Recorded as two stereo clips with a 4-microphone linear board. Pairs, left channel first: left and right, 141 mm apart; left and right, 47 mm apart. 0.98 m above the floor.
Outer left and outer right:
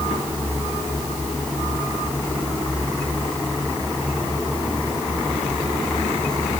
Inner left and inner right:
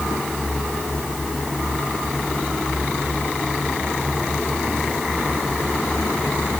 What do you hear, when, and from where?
Only background noise.